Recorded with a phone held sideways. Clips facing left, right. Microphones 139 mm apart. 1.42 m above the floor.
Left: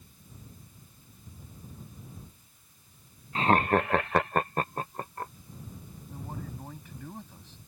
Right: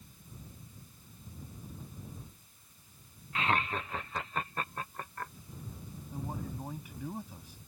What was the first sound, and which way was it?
Laughter, 35° left (ahead or behind).